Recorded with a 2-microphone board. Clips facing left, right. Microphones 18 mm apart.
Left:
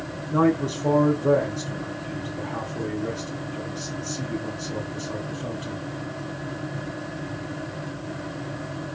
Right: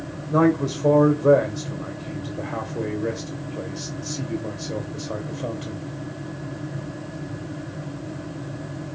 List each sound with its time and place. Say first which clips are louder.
0.3 s a man speaking: right 2 dB; 35° right (ahead or behind), 2.5 m